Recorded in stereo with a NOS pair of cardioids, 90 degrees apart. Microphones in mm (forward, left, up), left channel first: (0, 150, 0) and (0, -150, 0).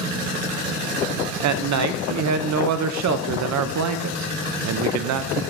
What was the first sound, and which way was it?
A man speaking, 70° right.